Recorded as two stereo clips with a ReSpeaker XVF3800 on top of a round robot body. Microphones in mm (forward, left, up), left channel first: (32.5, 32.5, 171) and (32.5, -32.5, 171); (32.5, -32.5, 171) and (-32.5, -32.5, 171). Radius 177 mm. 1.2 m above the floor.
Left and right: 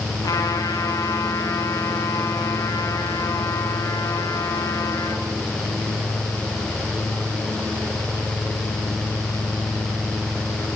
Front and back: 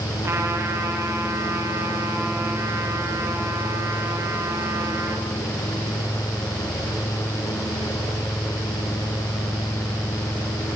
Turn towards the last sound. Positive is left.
turn(degrees=125)